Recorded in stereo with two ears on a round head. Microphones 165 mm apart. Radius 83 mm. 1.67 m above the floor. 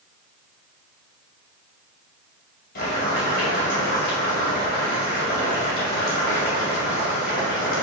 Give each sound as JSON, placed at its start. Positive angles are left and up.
{"t": 2.8, "sound": "boiling", "side_deg": 55, "distance_m": 2.5}